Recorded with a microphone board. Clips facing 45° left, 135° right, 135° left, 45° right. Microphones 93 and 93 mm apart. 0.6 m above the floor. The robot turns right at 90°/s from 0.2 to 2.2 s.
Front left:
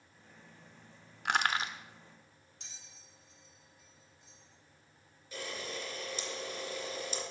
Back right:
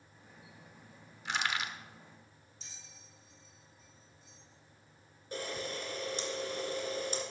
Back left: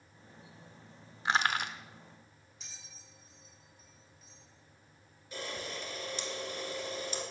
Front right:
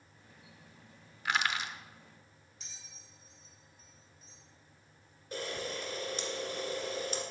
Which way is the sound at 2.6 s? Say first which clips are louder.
Back right 1 dB, back left 1 dB; 45° left.